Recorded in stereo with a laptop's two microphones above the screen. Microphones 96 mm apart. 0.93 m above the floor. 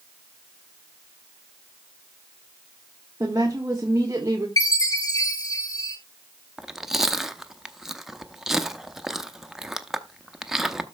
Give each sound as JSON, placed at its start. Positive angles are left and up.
{"t": 3.2, "sound": "a woman speaking", "side_deg": -35, "distance_m": 1.3}
{"t": 4.6, "sound": "a chime", "side_deg": 40, "distance_m": 1.2}
{"t": 6.6, "sound": "chewing", "side_deg": -5, "distance_m": 0.5}